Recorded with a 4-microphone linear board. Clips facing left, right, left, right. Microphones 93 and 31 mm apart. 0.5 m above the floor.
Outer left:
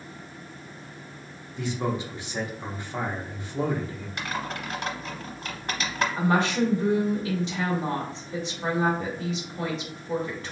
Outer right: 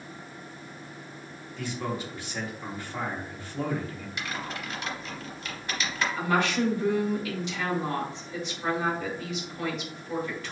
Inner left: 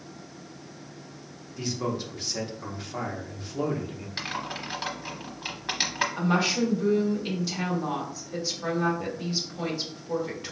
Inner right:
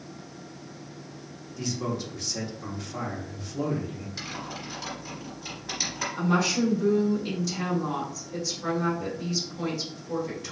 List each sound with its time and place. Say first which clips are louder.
1.6 s a man speaking: outer left 4 dB, inner left 1 dB; 20° left (ahead or behind), 0.7 m
4.2 s typing on a keyboard: outer left 4 dB, inner left 6 dB; 50° left (ahead or behind), 0.9 m
6.2 s a woman speaking: outer left 2 dB, inner right 2 dB; 35° left (ahead or behind), 1.5 m